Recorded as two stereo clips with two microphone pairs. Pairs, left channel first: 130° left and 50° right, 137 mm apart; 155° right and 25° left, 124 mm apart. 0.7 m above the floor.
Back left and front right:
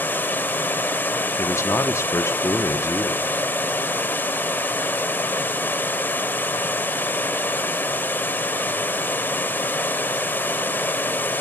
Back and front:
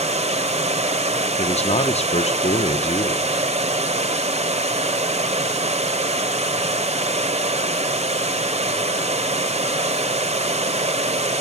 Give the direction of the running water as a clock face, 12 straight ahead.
10 o'clock.